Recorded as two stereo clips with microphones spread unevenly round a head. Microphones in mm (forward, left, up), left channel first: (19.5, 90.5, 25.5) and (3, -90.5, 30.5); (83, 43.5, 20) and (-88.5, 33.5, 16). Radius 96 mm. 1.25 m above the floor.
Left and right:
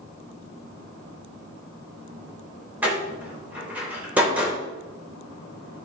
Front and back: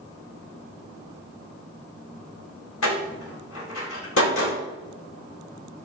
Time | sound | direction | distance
2.8 | a door slam | 15° right | 3.5 m